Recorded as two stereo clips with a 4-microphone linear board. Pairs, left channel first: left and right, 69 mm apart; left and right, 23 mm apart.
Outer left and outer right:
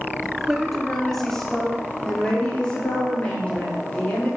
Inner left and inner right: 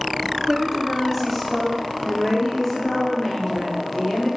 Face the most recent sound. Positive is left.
turn(degrees=20)  # may be behind; listen again after turning